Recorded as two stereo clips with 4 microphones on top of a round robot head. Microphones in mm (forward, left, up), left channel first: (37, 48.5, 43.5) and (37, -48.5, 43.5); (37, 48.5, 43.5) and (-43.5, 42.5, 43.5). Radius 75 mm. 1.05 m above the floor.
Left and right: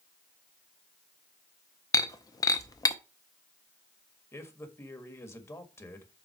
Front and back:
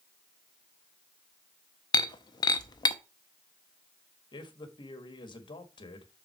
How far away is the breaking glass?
About 0.7 m.